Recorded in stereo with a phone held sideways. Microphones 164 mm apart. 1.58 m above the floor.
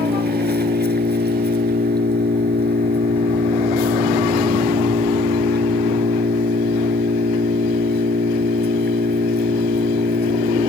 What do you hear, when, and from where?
0.0 s an engine running: 80° right